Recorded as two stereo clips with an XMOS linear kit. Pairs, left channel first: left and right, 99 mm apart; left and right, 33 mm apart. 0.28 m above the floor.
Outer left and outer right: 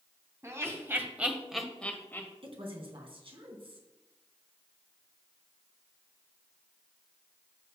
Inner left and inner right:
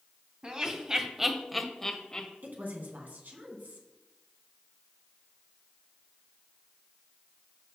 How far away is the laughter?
About 2.5 m.